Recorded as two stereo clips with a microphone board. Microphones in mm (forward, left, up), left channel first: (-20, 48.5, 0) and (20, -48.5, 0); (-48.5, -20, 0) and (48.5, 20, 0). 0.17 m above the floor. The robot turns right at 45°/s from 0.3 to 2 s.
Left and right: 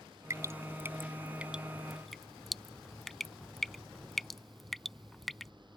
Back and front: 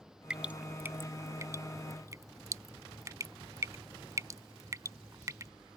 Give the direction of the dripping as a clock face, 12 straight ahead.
2 o'clock.